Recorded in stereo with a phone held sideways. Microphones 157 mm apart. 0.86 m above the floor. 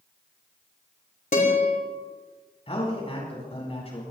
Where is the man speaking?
40° left (ahead or behind), 8 m.